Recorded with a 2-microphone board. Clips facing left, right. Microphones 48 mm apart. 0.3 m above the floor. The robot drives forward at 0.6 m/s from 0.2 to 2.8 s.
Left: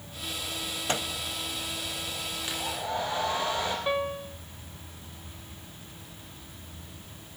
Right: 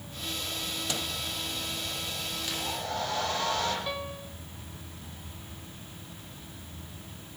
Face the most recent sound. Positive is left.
turn(degrees=25)  # may be behind; listen again after turning